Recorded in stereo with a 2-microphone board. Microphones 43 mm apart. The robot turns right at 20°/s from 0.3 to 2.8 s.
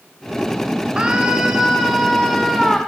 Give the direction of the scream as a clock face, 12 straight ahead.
1 o'clock.